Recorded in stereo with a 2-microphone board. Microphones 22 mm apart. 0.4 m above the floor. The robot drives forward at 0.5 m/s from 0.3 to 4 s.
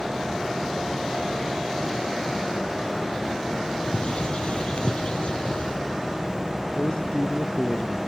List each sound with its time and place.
3.8 s a bird: 55° left (ahead or behind)
6.8 s a man speaking: 45° left (ahead or behind)